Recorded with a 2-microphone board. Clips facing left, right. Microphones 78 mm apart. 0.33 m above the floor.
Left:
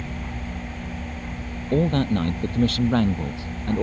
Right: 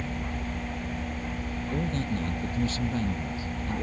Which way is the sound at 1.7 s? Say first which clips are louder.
Left 11 dB; 65° left (ahead or behind).